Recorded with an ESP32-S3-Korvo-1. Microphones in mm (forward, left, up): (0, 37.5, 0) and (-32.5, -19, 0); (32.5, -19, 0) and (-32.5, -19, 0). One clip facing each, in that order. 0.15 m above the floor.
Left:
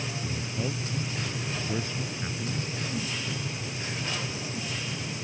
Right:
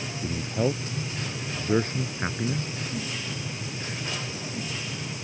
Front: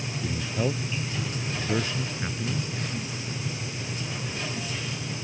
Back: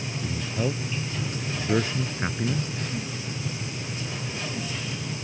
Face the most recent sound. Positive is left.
turn(degrees=-150)